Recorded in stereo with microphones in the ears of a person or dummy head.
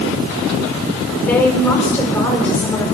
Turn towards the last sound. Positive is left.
turn(degrees=15)  # may be behind; listen again after turning